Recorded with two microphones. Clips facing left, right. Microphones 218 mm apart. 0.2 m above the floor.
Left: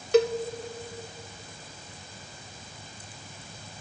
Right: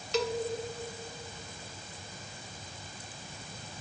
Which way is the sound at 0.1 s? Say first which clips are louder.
Left 10 dB; 50° left (ahead or behind).